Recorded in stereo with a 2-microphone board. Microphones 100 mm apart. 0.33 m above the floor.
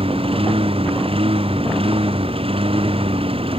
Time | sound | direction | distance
0.0 | a lawn mower | 70° right (ahead or behind) | ?